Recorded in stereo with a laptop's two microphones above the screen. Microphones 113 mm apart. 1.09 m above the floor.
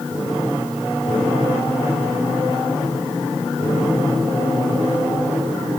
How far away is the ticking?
I don't hear ticking.